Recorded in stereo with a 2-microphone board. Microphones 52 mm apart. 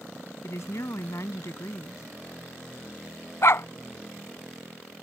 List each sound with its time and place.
0.4 s a woman speaking: 65° left (ahead or behind)
3.4 s a dog barking: 55° left (ahead or behind)